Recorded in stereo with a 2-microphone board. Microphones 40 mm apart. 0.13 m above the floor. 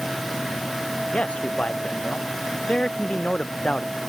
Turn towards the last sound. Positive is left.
turn(degrees=25)  # may be behind; listen again after turning